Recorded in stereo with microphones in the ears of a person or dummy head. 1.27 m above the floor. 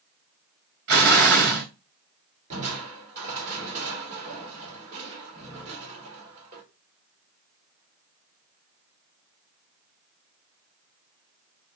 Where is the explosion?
65° right (ahead or behind), 2 m.